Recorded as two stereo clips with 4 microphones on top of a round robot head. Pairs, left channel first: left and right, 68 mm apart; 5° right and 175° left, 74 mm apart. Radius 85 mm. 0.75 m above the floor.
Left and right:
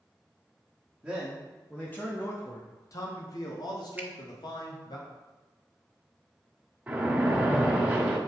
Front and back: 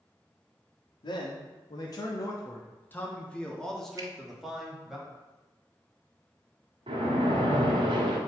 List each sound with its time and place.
1.0 s a man speaking: 5° right, 1.1 m; by 5.0 s 95° left, 2.0 m
4.0 s a finger snap: 155° right, 1.3 m
6.9 s a splash: 160° right, 1.4 m